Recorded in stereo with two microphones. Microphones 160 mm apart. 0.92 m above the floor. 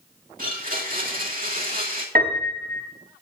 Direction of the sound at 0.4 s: 60° right (ahead or behind).